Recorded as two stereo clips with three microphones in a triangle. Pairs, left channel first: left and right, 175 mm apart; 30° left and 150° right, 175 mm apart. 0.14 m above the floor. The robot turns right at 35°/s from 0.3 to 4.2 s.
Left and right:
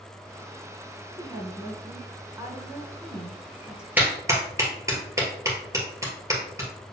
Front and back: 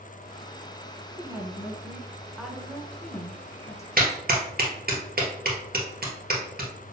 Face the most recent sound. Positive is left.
turn(degrees=-160)